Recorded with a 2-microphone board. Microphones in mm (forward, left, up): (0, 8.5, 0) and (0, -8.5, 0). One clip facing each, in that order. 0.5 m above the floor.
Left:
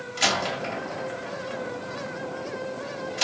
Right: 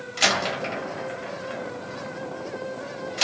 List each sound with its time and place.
0.2 s a door slam: 10° right (ahead or behind), 1.7 m